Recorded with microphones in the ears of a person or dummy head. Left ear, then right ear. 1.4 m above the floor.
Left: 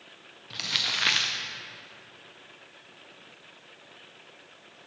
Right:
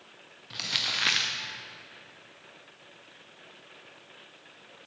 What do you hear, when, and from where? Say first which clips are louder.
0.5 s crumpling: left 1 dB; centre (ahead or behind), 0.6 m